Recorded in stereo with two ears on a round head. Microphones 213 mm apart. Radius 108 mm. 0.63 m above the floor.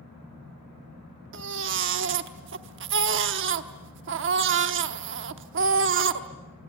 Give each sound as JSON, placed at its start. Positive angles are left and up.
{"t": 1.3, "sound": "a baby crying", "side_deg": -50, "distance_m": 1.0}